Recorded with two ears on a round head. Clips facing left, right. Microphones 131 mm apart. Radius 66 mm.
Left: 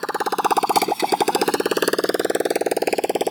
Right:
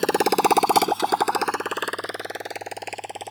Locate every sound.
0.0 s a motorcycle: 30° right (ahead or behind); by 3.3 s 75° left (ahead or behind)